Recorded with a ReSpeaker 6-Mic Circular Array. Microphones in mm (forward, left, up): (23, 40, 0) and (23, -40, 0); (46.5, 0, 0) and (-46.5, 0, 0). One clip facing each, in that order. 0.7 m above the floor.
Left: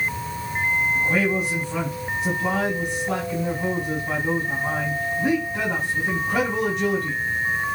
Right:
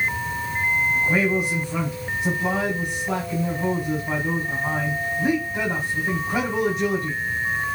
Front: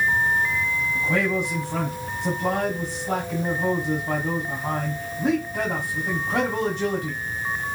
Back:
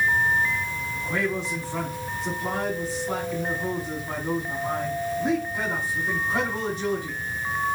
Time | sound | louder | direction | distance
0.9 | a man speaking | right 1 dB, front 3 dB | 10° right | 5 m